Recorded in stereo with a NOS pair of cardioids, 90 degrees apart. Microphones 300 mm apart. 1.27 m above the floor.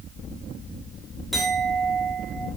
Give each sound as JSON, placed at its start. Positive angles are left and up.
{"t": 1.3, "sound": "a clink", "azimuth_deg": 0, "distance_m": 2.0}